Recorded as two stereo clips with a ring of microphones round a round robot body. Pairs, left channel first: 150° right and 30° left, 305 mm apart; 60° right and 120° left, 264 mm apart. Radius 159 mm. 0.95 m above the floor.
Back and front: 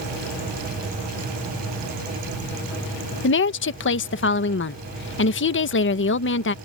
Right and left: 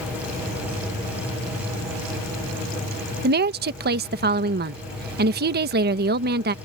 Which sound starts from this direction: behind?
A woman speaking, at 3.2 s.